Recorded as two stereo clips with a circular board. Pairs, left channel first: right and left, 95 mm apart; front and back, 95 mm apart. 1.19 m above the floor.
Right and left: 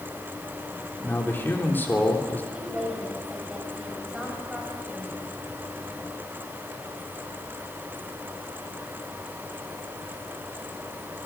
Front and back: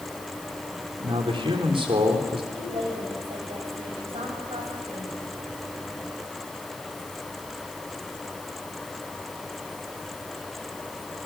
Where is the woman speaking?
170° left, 7.5 m.